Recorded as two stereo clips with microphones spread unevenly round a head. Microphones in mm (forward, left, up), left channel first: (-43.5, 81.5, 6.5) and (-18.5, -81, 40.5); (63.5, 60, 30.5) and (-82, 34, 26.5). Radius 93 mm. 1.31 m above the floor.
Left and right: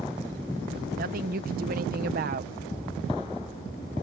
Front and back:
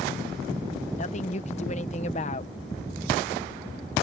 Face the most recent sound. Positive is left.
turn(degrees=-35)